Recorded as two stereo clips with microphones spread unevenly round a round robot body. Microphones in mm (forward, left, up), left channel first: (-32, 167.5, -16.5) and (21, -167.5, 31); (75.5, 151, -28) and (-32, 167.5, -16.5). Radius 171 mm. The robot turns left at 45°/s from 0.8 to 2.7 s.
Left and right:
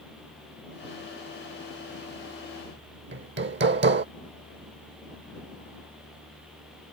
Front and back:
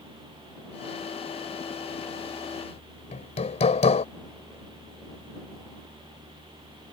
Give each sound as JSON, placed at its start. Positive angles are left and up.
{"t": 3.1, "sound": "hammering", "azimuth_deg": -20}